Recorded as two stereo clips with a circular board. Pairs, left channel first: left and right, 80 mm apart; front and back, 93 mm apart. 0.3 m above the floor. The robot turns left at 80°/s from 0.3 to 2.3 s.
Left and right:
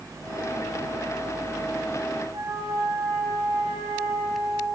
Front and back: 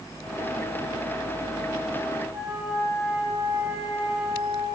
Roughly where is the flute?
Right.